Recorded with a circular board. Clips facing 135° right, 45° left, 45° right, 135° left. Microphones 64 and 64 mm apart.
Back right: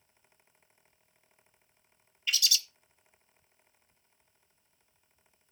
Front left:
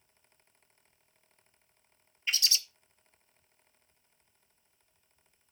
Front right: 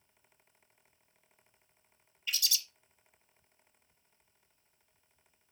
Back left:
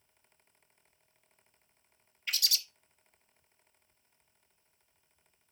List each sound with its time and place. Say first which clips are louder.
2.3 s a bird: back right 1 dB, back left 1 dB; 100° left, 0.7 m